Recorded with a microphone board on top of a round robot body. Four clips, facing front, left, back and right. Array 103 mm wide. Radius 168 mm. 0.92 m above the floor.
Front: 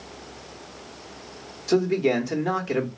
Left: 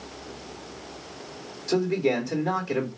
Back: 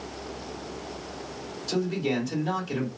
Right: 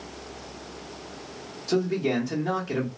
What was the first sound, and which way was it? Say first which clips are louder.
A man speaking: left 1 dB, front 7 dB; straight ahead.